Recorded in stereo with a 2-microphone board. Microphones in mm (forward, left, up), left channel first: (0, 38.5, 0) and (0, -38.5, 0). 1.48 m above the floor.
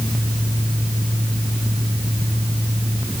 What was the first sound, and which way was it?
Only background noise.